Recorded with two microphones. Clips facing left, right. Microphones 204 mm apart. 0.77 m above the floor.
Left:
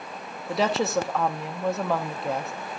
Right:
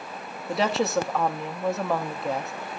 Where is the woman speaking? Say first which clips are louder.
Even; centre (ahead or behind), 0.7 m.